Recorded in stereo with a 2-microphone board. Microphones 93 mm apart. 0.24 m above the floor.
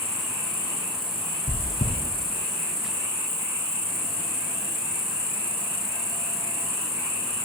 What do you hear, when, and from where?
0.0 s an insect: 85° left, 1.3 m
1.5 s chewing: 60° left (ahead or behind), 2 m